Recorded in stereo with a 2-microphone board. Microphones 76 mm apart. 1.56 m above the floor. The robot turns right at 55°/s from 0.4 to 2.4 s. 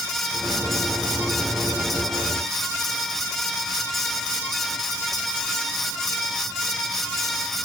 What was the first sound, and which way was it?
Only background noise.